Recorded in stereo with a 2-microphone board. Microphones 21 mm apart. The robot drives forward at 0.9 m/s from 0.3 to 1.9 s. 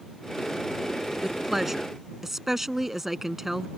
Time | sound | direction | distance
1.2 | a woman speaking | 10° right (ahead or behind) | ?